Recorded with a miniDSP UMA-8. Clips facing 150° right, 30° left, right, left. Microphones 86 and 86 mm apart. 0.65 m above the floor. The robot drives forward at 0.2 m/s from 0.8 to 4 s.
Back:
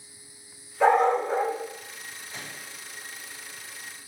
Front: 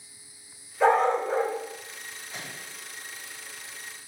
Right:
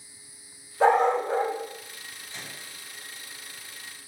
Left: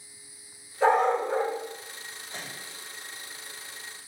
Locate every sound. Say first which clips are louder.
0.8 s a dog barking: back 1 dB, right 2 dB; 80° right, 2 m; by 1.5 s 85° right, 2 m
2.3 s a microwave: front 1 dB, left 2 dB; 120° left, 2.0 m